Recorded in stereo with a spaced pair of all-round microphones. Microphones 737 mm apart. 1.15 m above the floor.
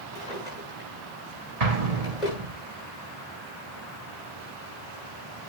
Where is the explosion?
60° right (ahead or behind), 1.7 m.